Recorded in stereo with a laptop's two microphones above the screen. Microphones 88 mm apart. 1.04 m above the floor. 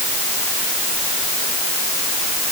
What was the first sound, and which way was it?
Only background noise.